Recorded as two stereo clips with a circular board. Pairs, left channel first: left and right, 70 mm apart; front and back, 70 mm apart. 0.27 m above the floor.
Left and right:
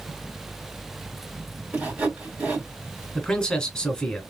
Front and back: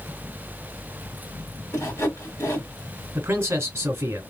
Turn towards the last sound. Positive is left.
turn(degrees=155)